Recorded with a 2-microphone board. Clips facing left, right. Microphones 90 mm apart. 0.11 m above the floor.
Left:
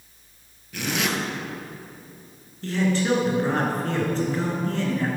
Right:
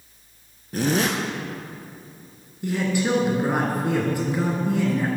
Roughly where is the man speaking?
Centre.